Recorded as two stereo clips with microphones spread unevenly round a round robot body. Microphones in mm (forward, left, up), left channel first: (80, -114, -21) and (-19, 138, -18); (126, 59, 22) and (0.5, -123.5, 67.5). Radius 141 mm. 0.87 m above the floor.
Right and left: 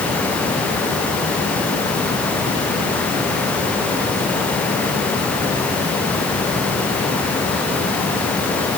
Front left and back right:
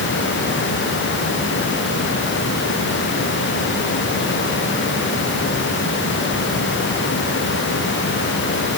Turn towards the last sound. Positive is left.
No sound to turn to.